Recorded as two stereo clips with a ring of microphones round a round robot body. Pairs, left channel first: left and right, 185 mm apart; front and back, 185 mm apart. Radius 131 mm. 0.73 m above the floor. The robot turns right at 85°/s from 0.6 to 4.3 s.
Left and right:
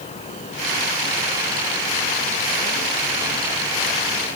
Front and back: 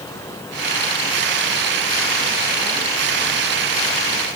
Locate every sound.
Only background noise.